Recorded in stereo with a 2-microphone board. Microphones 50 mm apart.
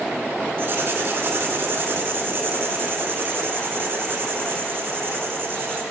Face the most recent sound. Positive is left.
turn(degrees=-50)  # may be behind; listen again after turning